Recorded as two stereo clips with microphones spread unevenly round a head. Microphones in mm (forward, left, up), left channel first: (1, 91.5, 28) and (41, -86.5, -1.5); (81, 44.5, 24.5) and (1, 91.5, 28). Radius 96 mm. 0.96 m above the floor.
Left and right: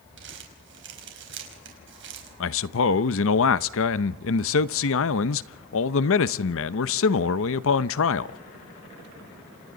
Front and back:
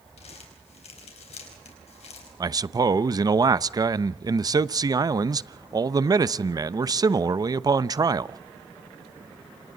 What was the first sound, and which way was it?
Crumpling, 55° right.